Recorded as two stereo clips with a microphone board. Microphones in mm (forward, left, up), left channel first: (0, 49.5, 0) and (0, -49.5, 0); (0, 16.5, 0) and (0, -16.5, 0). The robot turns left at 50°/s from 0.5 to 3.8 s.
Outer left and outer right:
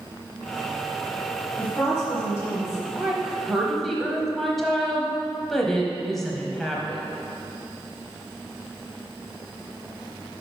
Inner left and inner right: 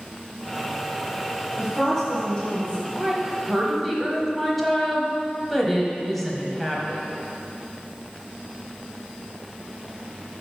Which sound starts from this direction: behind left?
A woman speaking, at 1.6 s.